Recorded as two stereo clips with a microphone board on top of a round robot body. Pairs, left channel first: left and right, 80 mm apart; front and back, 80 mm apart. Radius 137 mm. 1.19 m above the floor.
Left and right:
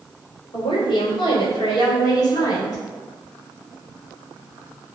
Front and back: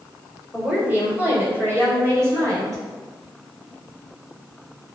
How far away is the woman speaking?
About 4.5 m.